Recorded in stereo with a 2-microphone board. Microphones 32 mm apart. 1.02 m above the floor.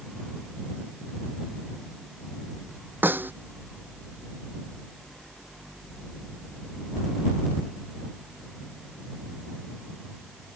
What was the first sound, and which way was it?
A snare drum, 85° right.